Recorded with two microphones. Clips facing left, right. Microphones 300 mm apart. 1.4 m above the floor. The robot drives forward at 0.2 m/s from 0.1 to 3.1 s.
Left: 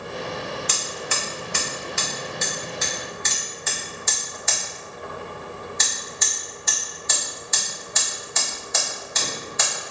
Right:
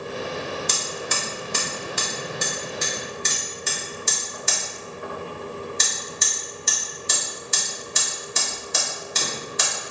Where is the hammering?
50° right (ahead or behind), 1.4 m; by 9.7 s 35° right (ahead or behind), 1.7 m.